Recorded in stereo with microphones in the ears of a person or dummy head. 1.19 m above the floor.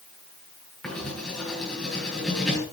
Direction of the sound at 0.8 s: 10° left (ahead or behind).